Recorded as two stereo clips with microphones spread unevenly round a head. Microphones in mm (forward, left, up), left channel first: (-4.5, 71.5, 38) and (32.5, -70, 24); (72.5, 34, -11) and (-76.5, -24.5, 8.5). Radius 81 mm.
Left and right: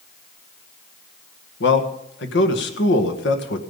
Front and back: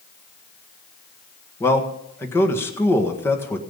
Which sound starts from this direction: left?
A man speaking, at 1.6 s.